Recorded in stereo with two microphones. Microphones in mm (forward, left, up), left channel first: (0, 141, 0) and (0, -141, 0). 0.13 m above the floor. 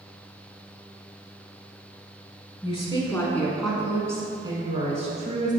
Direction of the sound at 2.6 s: 20° left (ahead or behind).